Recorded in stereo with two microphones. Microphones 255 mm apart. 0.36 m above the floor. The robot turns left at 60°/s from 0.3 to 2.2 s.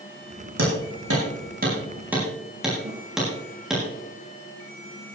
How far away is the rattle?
I don't hear a rattle.